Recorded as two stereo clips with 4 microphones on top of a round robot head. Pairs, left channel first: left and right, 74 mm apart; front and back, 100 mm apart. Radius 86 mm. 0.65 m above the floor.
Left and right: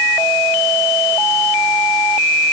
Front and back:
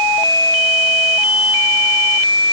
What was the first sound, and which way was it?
Only background noise.